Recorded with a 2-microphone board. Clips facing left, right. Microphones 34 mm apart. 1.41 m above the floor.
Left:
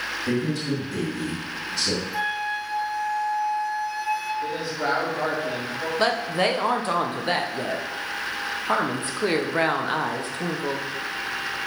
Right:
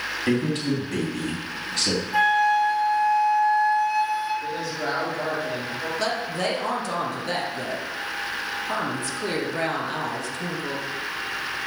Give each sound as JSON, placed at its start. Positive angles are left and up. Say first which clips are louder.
{"t": 0.3, "sound": "a man speaking", "louder": "right 3 dB", "side_deg": -60, "distance_m": 2.5}
{"t": 2.1, "sound": "a flute", "louder": "right 7 dB", "side_deg": -45, "distance_m": 1.7}
{"t": 4.4, "sound": "a woman speaking", "louder": "left 1 dB", "side_deg": 25, "distance_m": 3.0}
{"t": 6.0, "sound": "a woman speaking", "louder": "left 5 dB", "side_deg": 40, "distance_m": 1.1}